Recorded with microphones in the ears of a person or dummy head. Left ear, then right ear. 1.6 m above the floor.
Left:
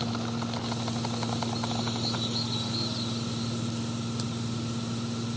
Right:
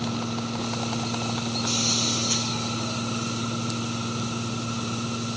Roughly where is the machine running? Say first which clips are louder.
Right 3 dB; right.